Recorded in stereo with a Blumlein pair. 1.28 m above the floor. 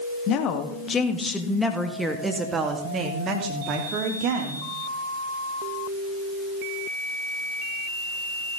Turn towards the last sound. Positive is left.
turn(degrees=-45)